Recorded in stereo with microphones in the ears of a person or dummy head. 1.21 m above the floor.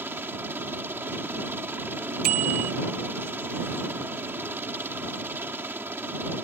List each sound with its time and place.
0.0 s a helicopter: 10° right (ahead or behind)
2.2 s a bicycle bell: 45° right (ahead or behind)